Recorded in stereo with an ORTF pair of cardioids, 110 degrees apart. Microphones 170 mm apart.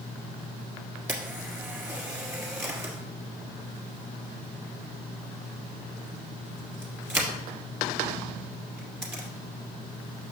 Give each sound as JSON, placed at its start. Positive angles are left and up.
{"t": 1.1, "sound": "a camera shutter", "azimuth_deg": -15, "distance_m": 2.0}